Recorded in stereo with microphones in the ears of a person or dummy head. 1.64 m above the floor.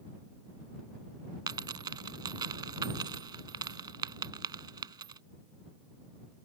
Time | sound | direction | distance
1.5 | a dropped coin | 25° right (ahead or behind) | ?